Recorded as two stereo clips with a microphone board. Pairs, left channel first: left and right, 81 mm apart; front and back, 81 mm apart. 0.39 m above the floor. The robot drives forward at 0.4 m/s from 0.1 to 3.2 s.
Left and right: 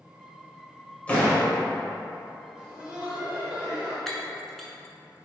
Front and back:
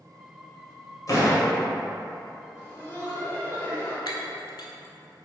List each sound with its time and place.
1.1 s a door slam: 25° left, 1.4 m
2.5 s laughter: 15° right, 1.8 m; by 4.0 s 20° right, 1.7 m
4.1 s breaking glass: 5° left, 0.7 m